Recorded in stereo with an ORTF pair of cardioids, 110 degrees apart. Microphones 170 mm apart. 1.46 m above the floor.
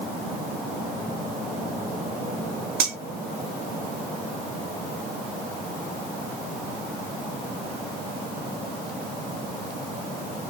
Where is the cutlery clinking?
60° right, 1.9 m.